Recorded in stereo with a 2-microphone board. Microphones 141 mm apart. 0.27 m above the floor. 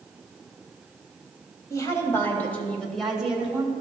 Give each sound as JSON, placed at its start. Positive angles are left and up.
{"t": 1.7, "sound": "a woman speaking", "side_deg": 25, "distance_m": 1.2}